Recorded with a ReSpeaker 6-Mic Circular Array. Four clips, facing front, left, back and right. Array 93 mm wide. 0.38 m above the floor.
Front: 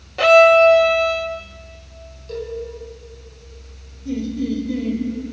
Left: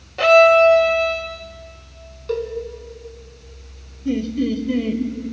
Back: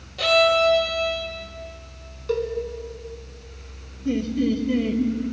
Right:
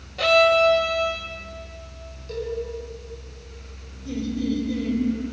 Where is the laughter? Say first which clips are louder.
Left 5 dB, back 1 dB; 125° left, 1.7 m.